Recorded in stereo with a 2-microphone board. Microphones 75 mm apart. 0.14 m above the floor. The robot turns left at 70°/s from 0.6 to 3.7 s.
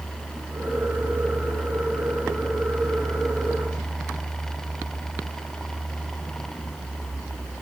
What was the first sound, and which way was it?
Only background noise.